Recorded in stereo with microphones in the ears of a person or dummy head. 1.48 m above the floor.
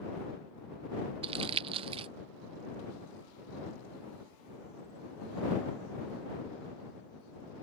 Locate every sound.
1.2 s crumpling: 35° right (ahead or behind)